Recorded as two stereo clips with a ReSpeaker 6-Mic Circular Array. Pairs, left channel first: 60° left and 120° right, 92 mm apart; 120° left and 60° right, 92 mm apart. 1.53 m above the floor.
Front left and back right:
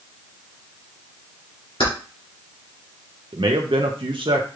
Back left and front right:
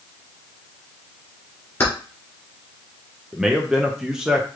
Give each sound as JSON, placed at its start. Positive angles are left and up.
{"t": 1.8, "sound": "keys jangling", "azimuth_deg": 55, "distance_m": 2.0}
{"t": 3.3, "sound": "a man speaking", "azimuth_deg": -140, "distance_m": 0.6}